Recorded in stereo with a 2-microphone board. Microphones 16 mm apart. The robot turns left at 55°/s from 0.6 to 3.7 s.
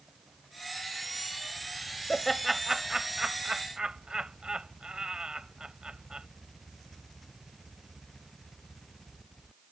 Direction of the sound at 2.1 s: 10° left (ahead or behind).